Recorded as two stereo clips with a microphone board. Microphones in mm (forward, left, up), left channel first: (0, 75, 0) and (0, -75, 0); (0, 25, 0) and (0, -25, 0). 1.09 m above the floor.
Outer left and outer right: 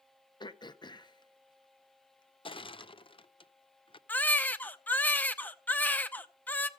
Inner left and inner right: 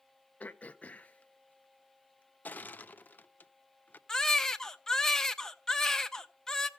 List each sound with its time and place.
0.4 s throat clearing: 30° left (ahead or behind), 0.6 m
2.5 s crushing: 35° left (ahead or behind), 0.5 m
4.1 s a baby crying: 10° left (ahead or behind), 0.7 m